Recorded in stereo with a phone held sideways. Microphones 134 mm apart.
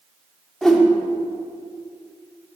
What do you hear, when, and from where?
0.6 s a whoosh: 5° left (ahead or behind), 1.1 m